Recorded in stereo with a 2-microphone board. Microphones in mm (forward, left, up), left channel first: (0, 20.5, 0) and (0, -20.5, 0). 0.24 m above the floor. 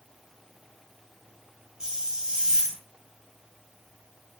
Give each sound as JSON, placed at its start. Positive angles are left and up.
{"t": 1.8, "sound": "a hiss", "side_deg": -15, "distance_m": 0.5}